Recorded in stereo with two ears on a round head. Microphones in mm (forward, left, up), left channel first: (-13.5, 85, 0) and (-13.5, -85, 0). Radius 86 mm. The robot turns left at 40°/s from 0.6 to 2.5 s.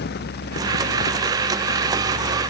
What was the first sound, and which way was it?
Only background noise.